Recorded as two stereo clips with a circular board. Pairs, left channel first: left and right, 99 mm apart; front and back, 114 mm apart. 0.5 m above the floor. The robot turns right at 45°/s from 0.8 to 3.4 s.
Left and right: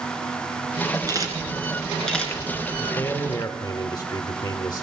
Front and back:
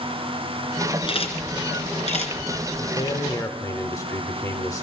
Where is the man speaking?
25° left, 1.1 m; by 4.8 s 50° left, 1.1 m.